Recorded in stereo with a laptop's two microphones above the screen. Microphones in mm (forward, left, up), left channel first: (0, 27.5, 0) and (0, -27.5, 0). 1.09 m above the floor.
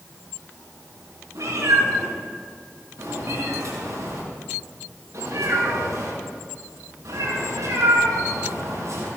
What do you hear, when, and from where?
1.4 s a cat meowing: 85° right, 6 m